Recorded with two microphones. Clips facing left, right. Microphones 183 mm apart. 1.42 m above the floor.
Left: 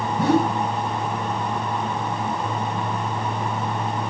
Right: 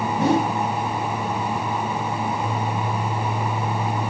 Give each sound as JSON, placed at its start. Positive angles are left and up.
{"t": 0.2, "sound": "a whoosh", "side_deg": -25, "distance_m": 5.0}